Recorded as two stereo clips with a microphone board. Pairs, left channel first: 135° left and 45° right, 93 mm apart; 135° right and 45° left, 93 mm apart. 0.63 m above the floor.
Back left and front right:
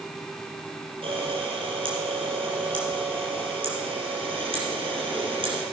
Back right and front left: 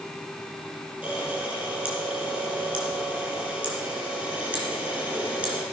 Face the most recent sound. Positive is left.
turn(degrees=-35)